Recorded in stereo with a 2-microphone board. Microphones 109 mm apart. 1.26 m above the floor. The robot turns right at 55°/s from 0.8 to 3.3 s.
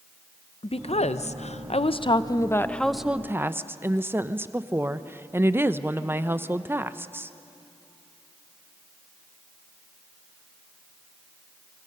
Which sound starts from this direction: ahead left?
A woman speaking, at 0.6 s.